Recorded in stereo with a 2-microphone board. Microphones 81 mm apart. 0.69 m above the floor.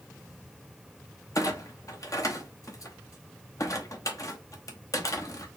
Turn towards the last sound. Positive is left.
turn(degrees=45)  # may be behind; listen again after turning